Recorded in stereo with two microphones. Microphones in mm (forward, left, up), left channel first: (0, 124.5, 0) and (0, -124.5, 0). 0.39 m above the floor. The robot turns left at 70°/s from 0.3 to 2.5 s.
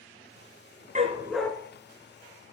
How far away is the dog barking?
About 1.8 m.